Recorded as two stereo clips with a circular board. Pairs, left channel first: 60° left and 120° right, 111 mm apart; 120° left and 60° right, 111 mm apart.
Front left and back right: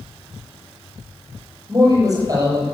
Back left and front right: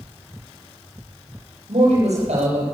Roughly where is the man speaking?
Ahead right.